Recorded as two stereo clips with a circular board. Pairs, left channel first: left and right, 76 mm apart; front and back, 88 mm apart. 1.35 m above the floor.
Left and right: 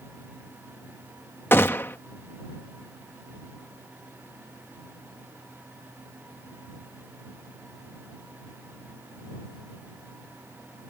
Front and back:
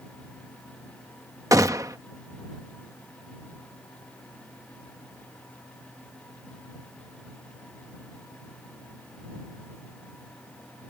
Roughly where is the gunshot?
Behind left.